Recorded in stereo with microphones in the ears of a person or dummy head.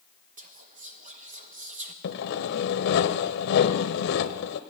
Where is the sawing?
60° left (ahead or behind), 0.6 m.